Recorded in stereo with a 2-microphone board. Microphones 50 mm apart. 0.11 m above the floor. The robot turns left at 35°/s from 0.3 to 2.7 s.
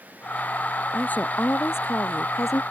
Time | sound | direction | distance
0.9 | a woman speaking | 150° left | ?